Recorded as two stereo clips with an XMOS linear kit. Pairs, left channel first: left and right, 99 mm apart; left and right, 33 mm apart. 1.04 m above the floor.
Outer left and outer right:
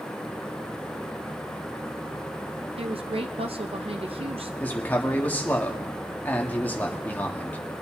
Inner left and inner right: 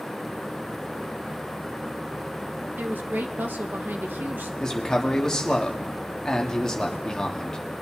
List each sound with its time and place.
2.8 s a woman speaking: 75° right (ahead or behind), 0.7 m
4.6 s a man speaking: 20° left (ahead or behind), 1.7 m